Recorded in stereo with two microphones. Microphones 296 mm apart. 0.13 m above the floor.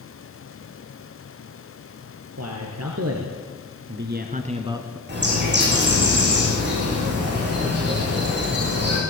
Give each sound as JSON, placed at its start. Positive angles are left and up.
{"t": 2.4, "sound": "a man speaking", "side_deg": -60, "distance_m": 3.0}
{"t": 5.1, "sound": "a bird", "side_deg": -35, "distance_m": 8.5}